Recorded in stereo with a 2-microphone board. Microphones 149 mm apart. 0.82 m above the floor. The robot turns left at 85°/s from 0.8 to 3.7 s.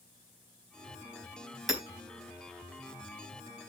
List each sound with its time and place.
1.7 s hammering: centre (ahead or behind), 4 m; by 1.8 s 15° right (ahead or behind), 4 m